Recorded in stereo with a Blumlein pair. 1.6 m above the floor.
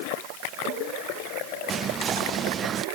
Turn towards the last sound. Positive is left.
turn(degrees=-20)